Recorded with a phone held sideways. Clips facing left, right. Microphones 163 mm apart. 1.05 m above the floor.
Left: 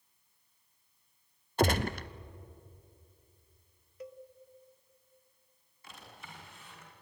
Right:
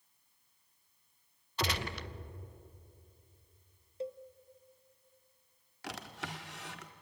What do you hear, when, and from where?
1.6 s a gunshot: 50° left (ahead or behind), 0.8 m
4.0 s a cowbell: 25° right (ahead or behind), 0.8 m
5.8 s a drawer: 80° right, 1.6 m